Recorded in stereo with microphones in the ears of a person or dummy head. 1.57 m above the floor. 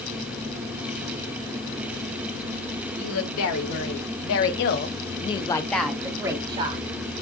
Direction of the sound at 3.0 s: 80° left.